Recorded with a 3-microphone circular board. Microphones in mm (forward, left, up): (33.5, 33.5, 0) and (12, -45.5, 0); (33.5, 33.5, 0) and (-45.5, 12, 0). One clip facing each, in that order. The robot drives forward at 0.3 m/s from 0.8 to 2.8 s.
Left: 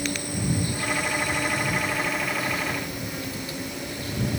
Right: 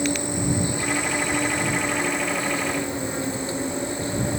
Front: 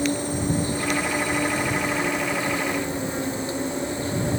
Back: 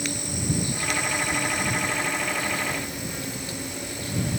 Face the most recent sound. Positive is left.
turn(degrees=-45)